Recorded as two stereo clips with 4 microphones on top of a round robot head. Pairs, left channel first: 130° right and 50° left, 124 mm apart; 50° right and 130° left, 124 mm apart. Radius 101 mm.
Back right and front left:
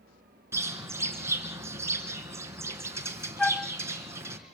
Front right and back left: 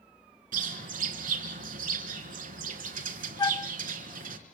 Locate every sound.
0.5 s a bird: 120° left, 3.5 m
3.4 s a flute: 55° right, 0.6 m